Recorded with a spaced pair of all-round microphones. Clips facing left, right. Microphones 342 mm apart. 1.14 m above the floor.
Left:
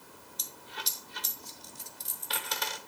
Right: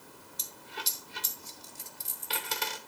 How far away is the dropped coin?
About 0.9 m.